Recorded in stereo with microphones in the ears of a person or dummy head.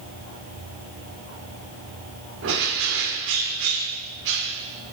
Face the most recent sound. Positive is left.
turn(degrees=-75)  # may be behind; listen again after turning